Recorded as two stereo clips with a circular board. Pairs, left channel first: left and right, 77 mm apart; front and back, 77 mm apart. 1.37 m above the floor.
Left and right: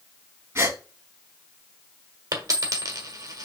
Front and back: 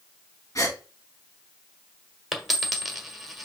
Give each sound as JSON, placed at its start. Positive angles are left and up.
{"t": 0.6, "sound": "a gasp", "azimuth_deg": -40, "distance_m": 3.0}
{"t": 2.3, "sound": "a dropped coin", "azimuth_deg": -90, "distance_m": 1.5}